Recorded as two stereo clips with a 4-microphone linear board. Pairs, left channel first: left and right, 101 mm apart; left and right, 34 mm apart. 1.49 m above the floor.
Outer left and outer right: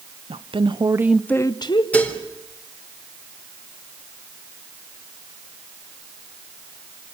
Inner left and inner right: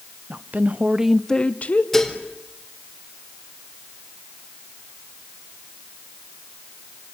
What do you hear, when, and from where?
0.3 s a woman speaking: 70° right (ahead or behind), 1.3 m; by 1.8 s 55° left (ahead or behind), 1.2 m
1.9 s dishes clattering: 15° left (ahead or behind), 3.5 m